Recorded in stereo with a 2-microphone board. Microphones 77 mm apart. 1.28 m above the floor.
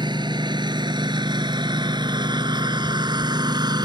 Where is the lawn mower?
80° right; by 3.9 s 70° right (ahead or behind).